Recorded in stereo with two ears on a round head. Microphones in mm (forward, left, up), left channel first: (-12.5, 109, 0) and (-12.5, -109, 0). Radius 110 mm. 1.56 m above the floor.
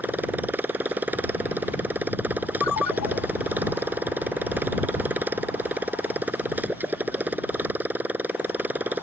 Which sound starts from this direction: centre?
A motorcycle, at 0.0 s.